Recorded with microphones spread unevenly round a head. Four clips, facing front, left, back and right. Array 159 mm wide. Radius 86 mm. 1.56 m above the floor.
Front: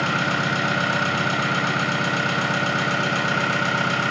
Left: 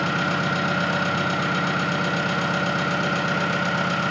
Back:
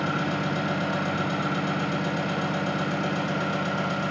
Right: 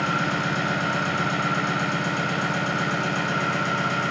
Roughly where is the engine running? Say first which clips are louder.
Left 1 dB, front 4 dB; ahead.